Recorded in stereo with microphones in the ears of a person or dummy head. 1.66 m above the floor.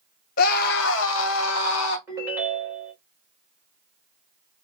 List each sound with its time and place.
0.4 s a scream: 50° left (ahead or behind), 0.7 m; by 2.0 s 75° left (ahead or behind), 1.1 m
2.1 s a ringtone: 15° right (ahead or behind), 1.2 m